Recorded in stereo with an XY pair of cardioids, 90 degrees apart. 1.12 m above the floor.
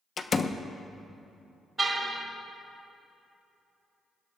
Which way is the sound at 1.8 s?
25° right.